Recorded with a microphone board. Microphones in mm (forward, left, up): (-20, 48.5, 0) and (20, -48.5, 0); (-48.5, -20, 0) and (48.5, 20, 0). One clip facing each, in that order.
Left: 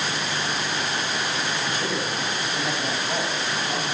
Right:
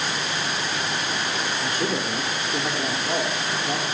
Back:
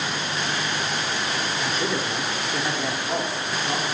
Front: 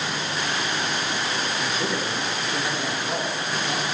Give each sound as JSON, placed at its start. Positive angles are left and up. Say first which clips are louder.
{"t": 1.6, "sound": "a man speaking", "louder": "right 1 dB, back 1 dB", "azimuth_deg": -65, "distance_m": 2.0}